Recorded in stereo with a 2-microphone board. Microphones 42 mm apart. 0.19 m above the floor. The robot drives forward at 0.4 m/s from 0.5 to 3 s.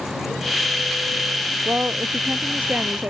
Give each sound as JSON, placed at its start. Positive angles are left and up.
{"t": 1.6, "sound": "a woman speaking", "side_deg": -40}